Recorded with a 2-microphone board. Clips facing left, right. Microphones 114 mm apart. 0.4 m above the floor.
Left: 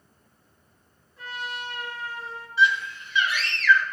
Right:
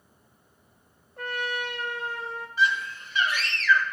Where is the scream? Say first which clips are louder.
Left 3 dB; 45° right (ahead or behind), 1.2 m.